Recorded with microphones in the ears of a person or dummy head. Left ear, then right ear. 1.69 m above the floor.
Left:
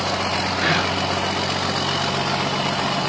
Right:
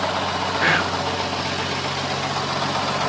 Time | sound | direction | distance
0.6 | whispering | 30° right (ahead or behind) | 0.9 m